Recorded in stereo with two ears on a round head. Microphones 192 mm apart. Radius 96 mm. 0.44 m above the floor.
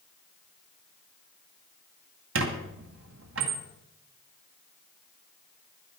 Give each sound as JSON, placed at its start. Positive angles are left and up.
{"t": 2.4, "sound": "a squeak", "side_deg": -65, "distance_m": 2.0}